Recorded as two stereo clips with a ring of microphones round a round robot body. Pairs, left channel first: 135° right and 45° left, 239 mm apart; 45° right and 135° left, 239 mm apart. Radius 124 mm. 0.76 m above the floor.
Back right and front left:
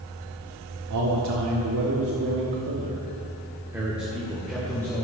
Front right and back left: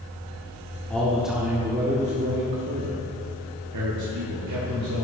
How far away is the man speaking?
About 1.7 m.